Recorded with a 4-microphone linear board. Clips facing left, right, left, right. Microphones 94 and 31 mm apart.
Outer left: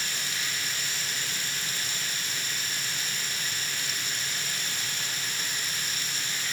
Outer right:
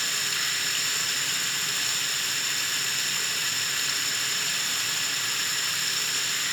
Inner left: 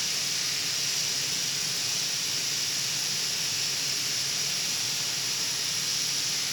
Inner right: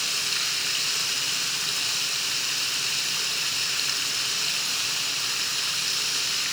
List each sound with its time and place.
0.0 s running water: 70° right (ahead or behind), 2.5 m